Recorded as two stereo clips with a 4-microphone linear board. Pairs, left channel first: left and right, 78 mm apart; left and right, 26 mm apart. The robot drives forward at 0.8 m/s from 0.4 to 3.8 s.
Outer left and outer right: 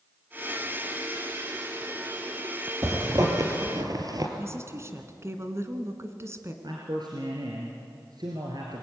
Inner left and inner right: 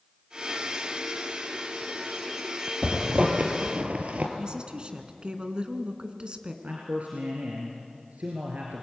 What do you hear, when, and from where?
2.8 s a zipper: 45° right (ahead or behind), 3.5 m; by 4.3 s 55° right (ahead or behind), 3 m
4.4 s a woman speaking: 35° right (ahead or behind), 2 m
6.6 s a man speaking: 65° right (ahead or behind), 3 m